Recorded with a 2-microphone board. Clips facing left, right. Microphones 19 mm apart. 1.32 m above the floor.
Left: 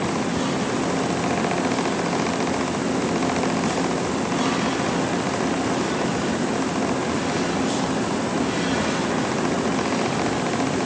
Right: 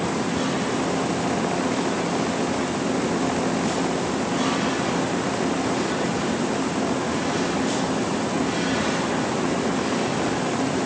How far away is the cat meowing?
I don't hear a cat meowing.